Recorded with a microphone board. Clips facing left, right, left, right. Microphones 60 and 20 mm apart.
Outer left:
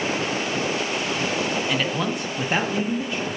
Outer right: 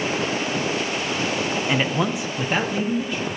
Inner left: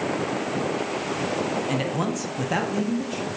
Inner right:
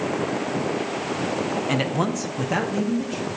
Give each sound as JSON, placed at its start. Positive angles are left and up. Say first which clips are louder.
{"t": 1.7, "sound": "a man speaking", "louder": "outer right 2 dB, inner right 2 dB", "side_deg": -20, "distance_m": 0.7}